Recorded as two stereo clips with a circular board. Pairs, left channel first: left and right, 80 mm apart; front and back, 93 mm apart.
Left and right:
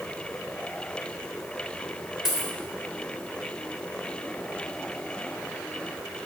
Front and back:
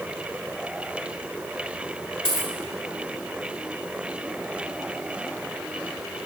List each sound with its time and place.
2.2 s a dropped coin: 5° right, 1.4 m